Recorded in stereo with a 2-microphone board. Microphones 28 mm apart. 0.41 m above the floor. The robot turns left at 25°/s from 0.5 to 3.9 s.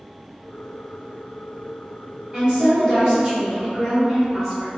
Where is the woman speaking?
105° right, 1.6 m; by 4.7 s 145° right, 1.6 m.